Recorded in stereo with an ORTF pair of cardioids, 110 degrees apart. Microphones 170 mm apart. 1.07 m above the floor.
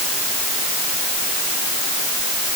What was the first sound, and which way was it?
Only background noise.